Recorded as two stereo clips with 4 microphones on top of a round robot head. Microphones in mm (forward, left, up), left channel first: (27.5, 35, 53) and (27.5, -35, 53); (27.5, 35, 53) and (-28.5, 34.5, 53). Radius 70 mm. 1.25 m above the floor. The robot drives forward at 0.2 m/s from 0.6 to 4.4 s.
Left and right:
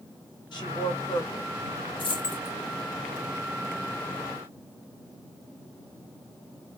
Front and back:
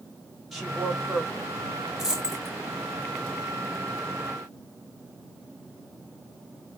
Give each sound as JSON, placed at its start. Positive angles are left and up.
{"t": 0.5, "sound": "a woman speaking", "azimuth_deg": 90, "distance_m": 2.0}
{"t": 2.0, "sound": "a dropped coin", "azimuth_deg": 100, "distance_m": 2.5}